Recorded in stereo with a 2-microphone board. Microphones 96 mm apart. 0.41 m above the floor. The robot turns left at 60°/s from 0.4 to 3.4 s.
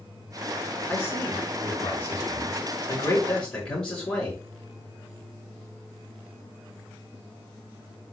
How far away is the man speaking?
About 5 m.